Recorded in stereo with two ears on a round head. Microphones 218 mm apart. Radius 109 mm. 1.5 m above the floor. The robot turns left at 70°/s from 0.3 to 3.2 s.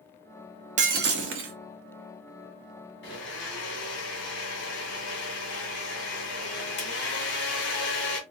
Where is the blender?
45° left (ahead or behind), 2 m; by 8.2 s 50° left (ahead or behind), 2 m.